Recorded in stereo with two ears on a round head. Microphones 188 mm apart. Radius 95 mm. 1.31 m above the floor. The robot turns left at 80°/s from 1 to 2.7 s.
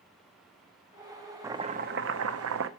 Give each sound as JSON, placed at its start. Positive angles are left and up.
{"t": 1.4, "sound": "chopping", "azimuth_deg": -15, "distance_m": 0.6}